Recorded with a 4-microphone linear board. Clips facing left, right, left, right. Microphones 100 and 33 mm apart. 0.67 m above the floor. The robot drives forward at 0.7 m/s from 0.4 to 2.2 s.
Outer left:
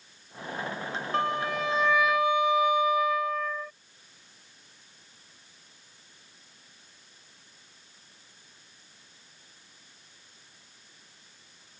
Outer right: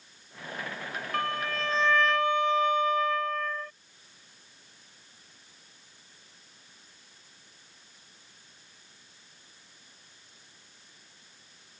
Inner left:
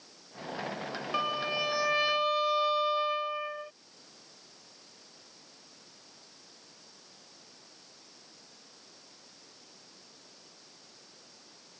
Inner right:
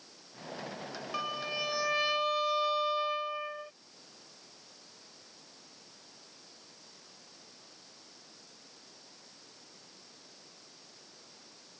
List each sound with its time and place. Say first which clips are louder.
1.1 s a violin: outer left 3 dB, inner left 4 dB; 25° left (ahead or behind); by 3.7 s 10° left (ahead or behind)